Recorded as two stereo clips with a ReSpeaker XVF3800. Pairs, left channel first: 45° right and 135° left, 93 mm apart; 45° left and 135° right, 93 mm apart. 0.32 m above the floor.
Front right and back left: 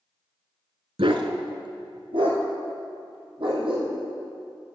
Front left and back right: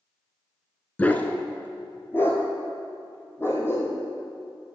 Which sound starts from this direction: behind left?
A dog barking, at 1.0 s.